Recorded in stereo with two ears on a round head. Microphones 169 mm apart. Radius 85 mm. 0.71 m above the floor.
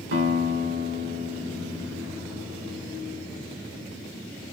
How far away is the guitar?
About 1.6 m.